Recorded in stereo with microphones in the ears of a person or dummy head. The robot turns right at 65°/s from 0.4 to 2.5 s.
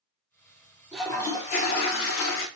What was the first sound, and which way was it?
A toilet flushing, straight ahead.